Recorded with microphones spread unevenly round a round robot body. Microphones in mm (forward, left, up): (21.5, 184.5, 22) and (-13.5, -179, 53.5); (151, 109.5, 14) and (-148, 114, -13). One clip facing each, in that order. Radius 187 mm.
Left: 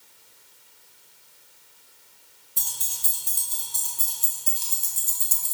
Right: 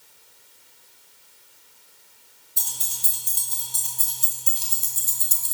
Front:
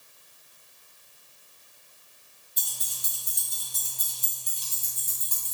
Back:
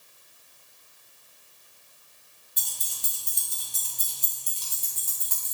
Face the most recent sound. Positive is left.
turn(degrees=-130)